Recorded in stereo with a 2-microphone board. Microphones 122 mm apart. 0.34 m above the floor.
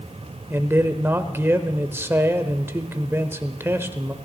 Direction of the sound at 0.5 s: 20° right (ahead or behind).